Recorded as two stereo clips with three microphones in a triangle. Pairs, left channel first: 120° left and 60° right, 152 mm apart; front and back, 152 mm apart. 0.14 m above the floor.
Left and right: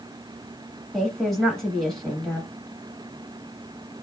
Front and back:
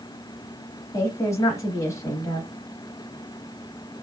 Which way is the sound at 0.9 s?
35° left.